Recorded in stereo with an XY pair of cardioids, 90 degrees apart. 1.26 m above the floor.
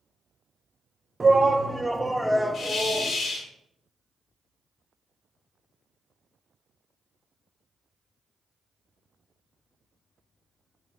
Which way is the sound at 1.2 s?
25° right.